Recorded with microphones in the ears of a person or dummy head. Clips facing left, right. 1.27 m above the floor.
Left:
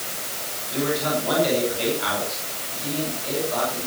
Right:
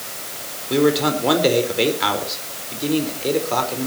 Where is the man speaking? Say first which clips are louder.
Right 7 dB; 70° right (ahead or behind), 4.5 m.